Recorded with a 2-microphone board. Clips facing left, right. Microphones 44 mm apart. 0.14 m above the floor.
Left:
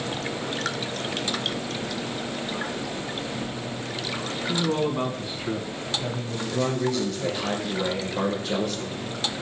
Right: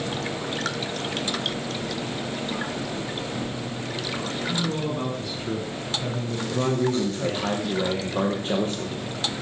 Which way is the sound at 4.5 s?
35° left (ahead or behind).